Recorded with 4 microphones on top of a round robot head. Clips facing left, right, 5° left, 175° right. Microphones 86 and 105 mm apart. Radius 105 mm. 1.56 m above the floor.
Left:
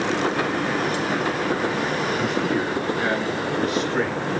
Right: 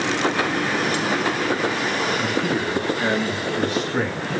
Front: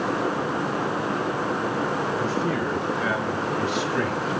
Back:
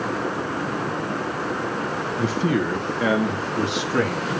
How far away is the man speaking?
About 1.0 m.